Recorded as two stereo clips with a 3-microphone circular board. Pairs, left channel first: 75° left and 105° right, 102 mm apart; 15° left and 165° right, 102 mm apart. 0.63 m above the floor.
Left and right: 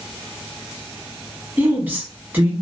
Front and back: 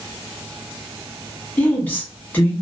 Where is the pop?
No pop in this recording.